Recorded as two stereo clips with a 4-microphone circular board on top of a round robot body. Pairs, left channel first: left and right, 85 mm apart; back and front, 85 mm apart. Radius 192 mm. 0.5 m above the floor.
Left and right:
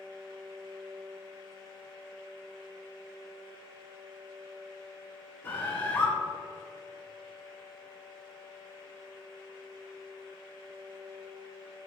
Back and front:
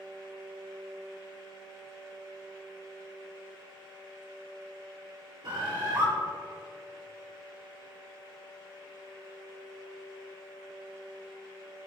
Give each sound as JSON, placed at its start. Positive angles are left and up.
{"t": 5.4, "sound": "a bird", "azimuth_deg": 25, "distance_m": 4.0}